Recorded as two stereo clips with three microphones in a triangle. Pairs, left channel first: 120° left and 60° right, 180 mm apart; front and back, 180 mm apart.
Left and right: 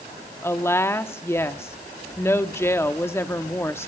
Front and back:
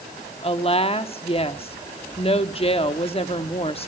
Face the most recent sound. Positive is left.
turn(degrees=45)